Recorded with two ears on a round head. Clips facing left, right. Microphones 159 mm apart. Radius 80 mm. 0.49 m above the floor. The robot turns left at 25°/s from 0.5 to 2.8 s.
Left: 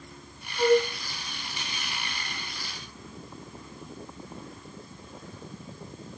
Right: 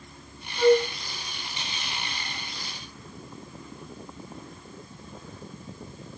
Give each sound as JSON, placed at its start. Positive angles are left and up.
{"t": 0.6, "sound": "a flute", "side_deg": 0, "distance_m": 3.0}